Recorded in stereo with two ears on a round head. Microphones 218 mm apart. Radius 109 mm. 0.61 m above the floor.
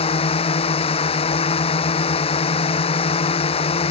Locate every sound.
0.0 s a drone: 25° left (ahead or behind)